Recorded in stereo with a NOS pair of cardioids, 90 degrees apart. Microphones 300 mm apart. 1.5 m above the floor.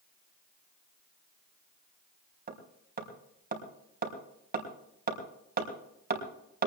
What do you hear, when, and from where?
2.5 s hammering: 30° right, 4.5 m